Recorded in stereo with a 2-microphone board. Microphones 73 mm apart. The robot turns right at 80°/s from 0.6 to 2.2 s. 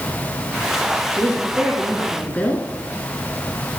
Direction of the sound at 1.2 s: 60° right.